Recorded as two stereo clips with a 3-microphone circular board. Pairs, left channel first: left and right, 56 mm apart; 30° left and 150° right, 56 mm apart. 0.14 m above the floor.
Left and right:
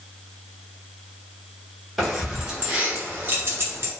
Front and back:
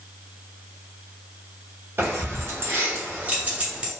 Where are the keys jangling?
Straight behind, 1.2 m; by 3.9 s 80° right, 1.2 m.